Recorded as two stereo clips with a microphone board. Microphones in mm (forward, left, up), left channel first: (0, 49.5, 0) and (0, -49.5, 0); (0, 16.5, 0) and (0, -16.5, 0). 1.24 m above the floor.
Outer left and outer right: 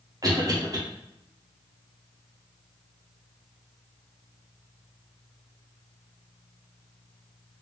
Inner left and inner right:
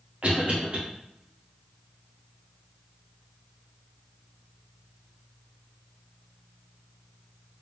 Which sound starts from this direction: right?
A cough, at 0.2 s.